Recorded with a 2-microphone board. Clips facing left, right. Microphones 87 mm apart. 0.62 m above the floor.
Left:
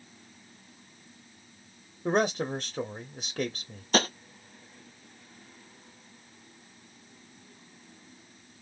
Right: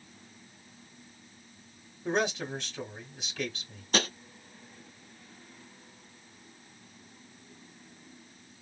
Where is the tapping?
35° left (ahead or behind), 0.9 m.